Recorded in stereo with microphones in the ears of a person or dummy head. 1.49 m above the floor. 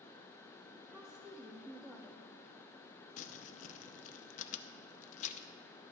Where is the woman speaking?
10° right (ahead or behind), 0.6 m.